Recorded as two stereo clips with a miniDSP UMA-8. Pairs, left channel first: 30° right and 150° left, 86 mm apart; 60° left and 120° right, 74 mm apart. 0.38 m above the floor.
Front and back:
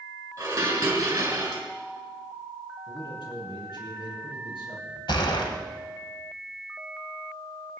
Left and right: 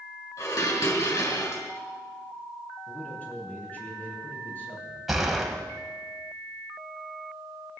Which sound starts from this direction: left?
Dishes clattering, at 0.4 s.